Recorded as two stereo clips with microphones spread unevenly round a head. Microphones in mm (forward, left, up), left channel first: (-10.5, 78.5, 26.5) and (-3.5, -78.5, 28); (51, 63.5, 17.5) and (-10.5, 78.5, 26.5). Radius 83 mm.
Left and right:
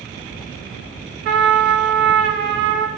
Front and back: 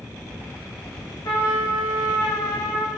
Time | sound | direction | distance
1.2 | a trumpet | 70° right | 0.6 m